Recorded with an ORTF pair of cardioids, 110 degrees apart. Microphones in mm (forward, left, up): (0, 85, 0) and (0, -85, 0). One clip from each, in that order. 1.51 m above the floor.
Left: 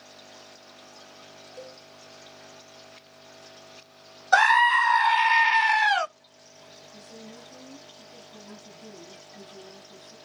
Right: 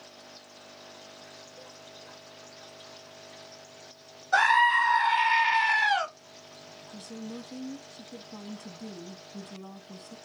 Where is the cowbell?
55° left, 1.4 m.